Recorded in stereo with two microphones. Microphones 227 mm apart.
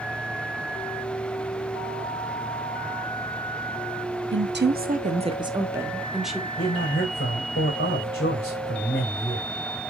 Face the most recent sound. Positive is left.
turn(degrees=55)  # may be behind; listen again after turning